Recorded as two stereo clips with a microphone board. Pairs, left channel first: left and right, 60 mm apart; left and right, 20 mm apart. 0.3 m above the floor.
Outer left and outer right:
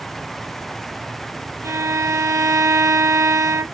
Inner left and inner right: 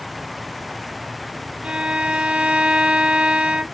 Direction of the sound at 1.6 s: 60° right (ahead or behind).